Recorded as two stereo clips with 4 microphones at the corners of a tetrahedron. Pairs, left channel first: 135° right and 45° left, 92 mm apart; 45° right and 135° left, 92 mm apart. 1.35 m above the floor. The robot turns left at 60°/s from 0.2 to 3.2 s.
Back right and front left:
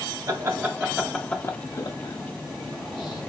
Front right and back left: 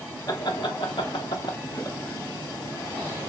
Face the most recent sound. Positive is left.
turn(degrees=180)